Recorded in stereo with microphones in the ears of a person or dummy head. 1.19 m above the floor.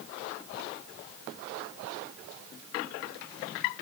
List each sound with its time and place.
Only background noise.